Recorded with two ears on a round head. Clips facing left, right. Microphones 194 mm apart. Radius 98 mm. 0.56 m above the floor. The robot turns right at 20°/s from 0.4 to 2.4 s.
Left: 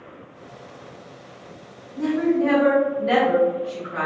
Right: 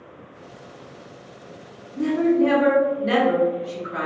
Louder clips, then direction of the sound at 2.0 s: Right 2 dB; 40° right (ahead or behind).